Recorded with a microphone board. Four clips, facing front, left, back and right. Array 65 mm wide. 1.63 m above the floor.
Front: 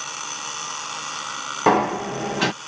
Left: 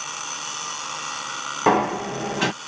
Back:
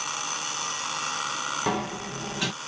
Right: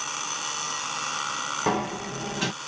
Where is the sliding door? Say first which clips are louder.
Left 9 dB, front 15 dB; 35° left.